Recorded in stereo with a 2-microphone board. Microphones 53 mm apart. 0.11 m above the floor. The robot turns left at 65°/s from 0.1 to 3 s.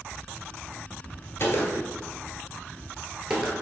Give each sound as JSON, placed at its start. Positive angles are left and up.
{"t": 1.4, "sound": "a gunshot", "side_deg": 55, "distance_m": 1.0}